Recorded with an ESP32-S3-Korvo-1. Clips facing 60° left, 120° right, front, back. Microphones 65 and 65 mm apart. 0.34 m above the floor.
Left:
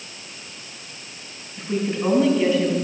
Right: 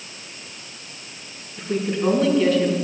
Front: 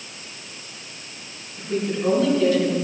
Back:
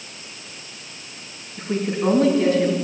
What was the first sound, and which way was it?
A woman speaking, 135° left.